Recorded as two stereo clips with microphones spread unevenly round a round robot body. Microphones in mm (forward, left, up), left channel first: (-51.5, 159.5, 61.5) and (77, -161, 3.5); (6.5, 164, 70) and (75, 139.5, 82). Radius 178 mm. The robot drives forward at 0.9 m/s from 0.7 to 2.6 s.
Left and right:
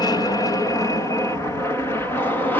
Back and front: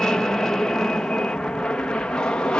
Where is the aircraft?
165° right; by 2.6 s 150° right.